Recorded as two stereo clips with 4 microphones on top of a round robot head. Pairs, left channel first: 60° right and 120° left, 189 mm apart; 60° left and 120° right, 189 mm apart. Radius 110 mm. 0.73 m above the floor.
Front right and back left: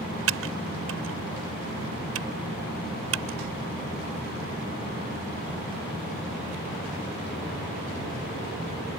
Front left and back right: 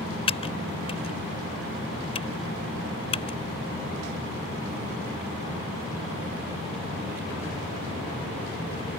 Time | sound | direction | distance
0.3 | typing on a keyboard | 120° left | ?